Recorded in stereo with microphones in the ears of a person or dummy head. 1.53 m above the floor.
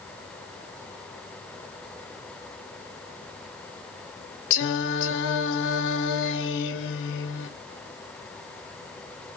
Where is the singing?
60° left (ahead or behind), 0.8 m.